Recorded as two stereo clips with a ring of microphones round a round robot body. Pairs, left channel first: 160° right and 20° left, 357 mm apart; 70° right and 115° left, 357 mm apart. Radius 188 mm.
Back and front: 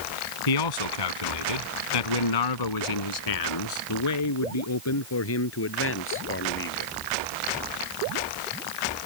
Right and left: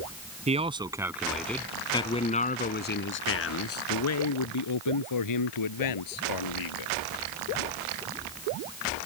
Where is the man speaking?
175° right; by 6.9 s 95° right.